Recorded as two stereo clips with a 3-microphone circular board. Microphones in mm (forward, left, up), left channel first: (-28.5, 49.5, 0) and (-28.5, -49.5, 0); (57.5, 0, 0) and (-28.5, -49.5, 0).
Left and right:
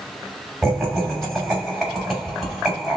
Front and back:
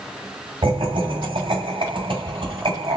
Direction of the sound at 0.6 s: Straight behind.